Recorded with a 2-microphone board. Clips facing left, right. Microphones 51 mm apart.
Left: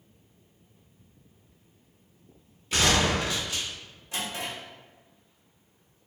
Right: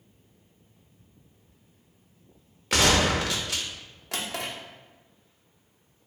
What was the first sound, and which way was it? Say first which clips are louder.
A gunshot: right 2 dB; 70° right (ahead or behind).